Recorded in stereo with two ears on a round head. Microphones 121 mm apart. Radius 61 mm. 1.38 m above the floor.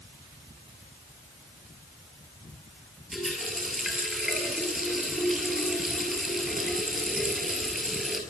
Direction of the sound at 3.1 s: Centre (ahead or behind).